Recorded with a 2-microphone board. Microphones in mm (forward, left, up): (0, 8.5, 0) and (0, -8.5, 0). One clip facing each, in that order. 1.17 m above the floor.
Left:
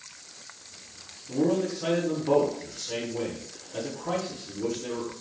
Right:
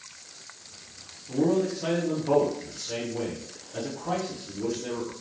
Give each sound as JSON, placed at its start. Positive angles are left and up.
{"t": 1.3, "sound": "a man speaking", "side_deg": 5, "distance_m": 1.2}